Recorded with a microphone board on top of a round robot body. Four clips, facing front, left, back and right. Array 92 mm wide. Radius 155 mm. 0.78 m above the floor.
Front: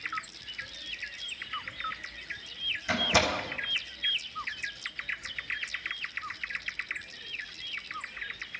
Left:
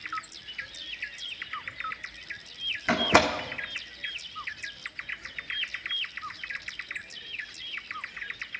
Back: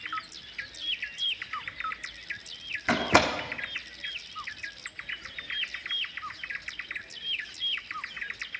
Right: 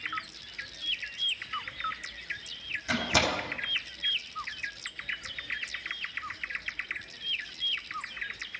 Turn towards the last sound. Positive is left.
turn(degrees=135)